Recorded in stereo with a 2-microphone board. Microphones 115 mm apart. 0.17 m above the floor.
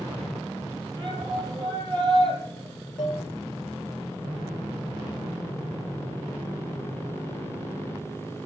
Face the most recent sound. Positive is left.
turn(degrees=45)  # may be behind; listen again after turning